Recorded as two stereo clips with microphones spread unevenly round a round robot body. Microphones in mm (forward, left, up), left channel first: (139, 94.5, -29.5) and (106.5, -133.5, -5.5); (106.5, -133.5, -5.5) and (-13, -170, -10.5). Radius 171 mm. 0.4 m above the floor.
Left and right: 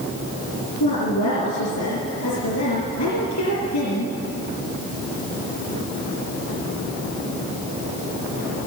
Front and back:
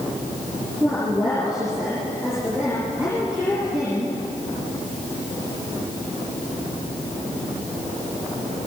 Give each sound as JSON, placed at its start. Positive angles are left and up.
{"t": 0.8, "sound": "a woman speaking", "azimuth_deg": 115, "distance_m": 5.0}